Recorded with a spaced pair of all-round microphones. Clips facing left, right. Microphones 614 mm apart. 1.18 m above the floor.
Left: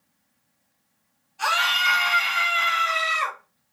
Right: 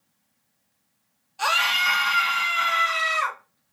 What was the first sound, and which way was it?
A scream, 60° right (ahead or behind).